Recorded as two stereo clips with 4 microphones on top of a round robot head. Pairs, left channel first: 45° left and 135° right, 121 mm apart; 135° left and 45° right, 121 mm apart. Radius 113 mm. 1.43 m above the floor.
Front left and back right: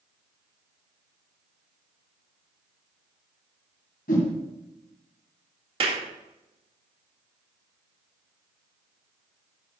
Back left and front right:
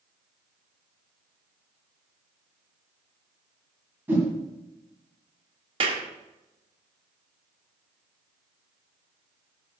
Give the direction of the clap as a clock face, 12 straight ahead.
3 o'clock.